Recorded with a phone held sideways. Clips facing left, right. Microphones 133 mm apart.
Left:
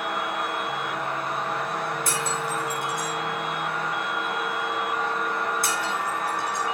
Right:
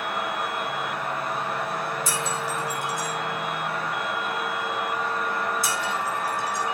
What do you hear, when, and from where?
0.0 s a fan: centre (ahead or behind), 3.5 m
2.1 s breaking glass: 60° left (ahead or behind), 8 m